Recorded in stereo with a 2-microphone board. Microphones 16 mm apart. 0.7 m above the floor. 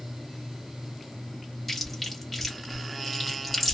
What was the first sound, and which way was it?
Chewing, 5° left (ahead or behind).